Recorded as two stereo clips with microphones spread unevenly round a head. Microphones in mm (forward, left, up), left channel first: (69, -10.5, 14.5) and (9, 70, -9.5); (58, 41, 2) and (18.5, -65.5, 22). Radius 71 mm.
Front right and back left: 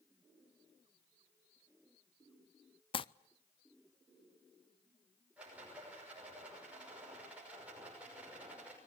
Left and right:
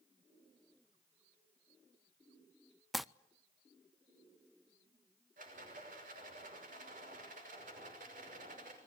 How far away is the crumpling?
About 0.6 m.